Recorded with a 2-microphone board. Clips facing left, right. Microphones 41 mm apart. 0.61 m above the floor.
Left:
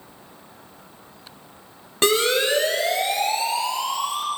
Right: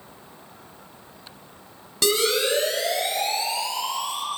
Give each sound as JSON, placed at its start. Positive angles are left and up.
{"t": 2.0, "sound": "a siren", "side_deg": 40, "distance_m": 3.5}